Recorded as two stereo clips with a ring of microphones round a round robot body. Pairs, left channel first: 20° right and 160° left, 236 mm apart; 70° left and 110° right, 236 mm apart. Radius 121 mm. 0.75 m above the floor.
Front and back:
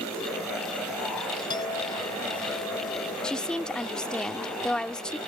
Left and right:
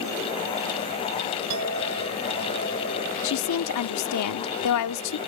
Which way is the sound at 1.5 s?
95° right.